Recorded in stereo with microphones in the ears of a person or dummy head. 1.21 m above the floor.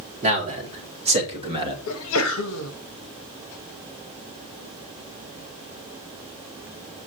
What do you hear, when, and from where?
0.2 s a man speaking: 35° right (ahead or behind), 3 m; by 1.8 s 25° right (ahead or behind), 2 m
1.9 s a sneeze: 75° left (ahead or behind), 1.2 m